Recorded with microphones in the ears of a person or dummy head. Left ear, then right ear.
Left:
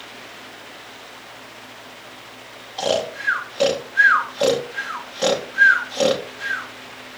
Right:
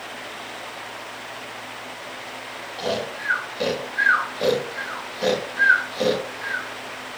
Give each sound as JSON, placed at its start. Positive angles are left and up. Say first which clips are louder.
{"t": 2.8, "sound": "snoring", "louder": "left 5 dB", "side_deg": 35, "distance_m": 2.0}